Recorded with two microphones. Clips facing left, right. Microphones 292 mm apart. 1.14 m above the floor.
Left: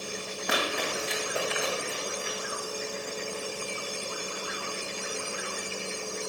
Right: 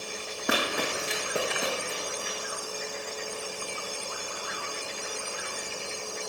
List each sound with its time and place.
0.5 s running footsteps: 60° right (ahead or behind), 2.5 m; by 2.4 s 45° right (ahead or behind), 2.5 m